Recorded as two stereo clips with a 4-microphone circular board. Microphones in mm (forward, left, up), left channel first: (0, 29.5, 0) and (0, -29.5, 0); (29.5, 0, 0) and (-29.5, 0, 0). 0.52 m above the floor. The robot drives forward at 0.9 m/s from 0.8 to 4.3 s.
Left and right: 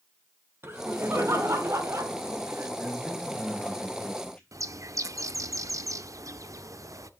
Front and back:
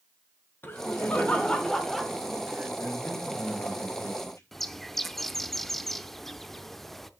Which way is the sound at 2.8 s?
10° left.